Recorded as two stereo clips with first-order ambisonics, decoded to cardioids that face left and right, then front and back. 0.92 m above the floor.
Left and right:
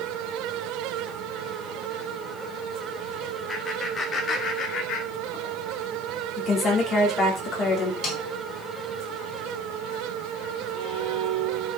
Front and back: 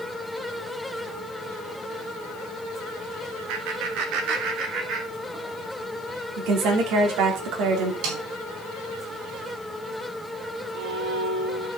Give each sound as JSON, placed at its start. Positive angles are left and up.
{"t": 3.5, "sound": "laughter", "azimuth_deg": 170, "distance_m": 2.5}
{"t": 6.4, "sound": "a woman speaking", "azimuth_deg": 155, "distance_m": 3.0}
{"t": 8.0, "sound": "a snare drum", "azimuth_deg": 145, "distance_m": 4.0}
{"t": 10.7, "sound": "a violin", "azimuth_deg": -155, "distance_m": 3.5}